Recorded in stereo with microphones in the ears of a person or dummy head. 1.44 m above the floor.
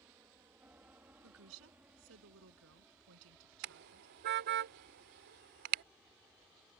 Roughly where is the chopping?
No chopping in this recording.